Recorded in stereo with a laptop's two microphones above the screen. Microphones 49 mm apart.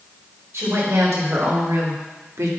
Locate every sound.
0.5 s a woman speaking: 80° right, 4 m